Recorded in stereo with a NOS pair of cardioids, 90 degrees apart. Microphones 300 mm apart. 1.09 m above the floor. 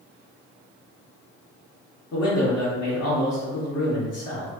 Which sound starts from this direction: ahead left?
A man speaking, at 2.1 s.